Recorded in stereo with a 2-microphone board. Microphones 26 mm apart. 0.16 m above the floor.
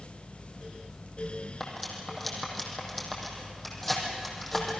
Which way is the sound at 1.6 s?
5° left (ahead or behind).